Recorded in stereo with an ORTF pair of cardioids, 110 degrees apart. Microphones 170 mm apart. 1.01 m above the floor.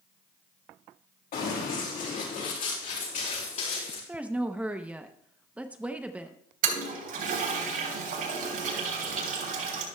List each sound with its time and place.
1.3 s running footsteps: 60° left, 6 m; by 4.0 s 45° left, 6.5 m
4.1 s a woman speaking: 10° right, 0.7 m
6.6 s a toilet flushing: 60° right, 3.5 m